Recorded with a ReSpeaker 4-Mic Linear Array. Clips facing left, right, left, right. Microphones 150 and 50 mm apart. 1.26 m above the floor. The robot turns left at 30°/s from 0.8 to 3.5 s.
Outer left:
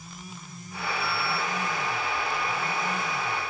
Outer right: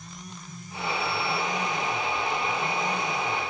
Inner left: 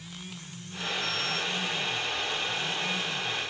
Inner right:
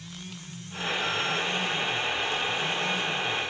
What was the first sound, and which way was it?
Only background noise.